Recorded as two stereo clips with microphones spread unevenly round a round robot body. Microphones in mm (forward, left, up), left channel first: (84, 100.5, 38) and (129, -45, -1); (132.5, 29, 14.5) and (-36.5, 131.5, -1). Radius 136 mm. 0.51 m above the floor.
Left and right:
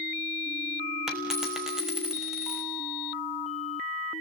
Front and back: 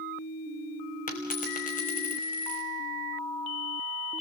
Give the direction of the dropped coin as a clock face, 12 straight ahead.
11 o'clock.